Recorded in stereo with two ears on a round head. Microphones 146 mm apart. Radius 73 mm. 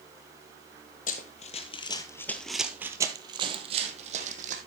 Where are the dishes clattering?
No dishes clattering in this recording.